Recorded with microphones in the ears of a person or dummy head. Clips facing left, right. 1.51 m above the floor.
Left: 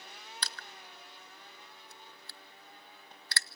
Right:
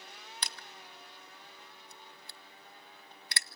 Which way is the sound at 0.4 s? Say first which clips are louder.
Even; 15° right (ahead or behind).